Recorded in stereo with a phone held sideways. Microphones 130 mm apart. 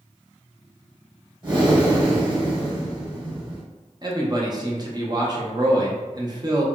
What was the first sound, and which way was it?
Breathing, 35° right (ahead or behind).